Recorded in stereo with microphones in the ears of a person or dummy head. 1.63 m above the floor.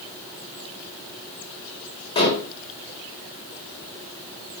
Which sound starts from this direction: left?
Dishes clattering, at 2.1 s.